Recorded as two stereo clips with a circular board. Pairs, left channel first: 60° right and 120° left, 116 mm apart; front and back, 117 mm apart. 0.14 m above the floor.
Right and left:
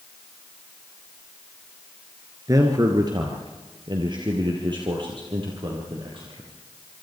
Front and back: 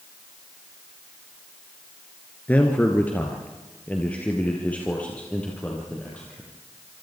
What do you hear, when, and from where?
2.5 s a man speaking: 70° left, 2 m; by 6.5 s 80° left, 4.5 m